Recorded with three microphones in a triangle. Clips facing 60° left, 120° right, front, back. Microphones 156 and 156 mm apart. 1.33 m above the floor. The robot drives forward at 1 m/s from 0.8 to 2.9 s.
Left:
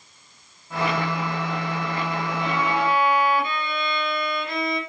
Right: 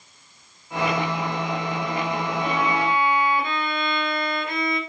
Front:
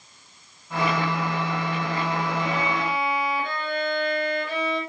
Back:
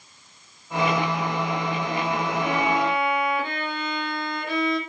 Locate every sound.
2.4 s a violin: 175° left, 3.5 m